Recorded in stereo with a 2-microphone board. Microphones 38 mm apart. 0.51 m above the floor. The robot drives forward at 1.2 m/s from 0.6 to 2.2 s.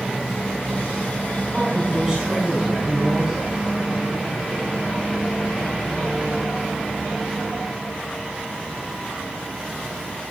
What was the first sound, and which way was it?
A woman speaking, 20° right (ahead or behind).